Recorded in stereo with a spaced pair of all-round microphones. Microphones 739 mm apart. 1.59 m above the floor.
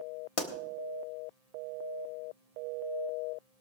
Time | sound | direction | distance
0.4 | a pop | 45° left (ahead or behind) | 1.4 m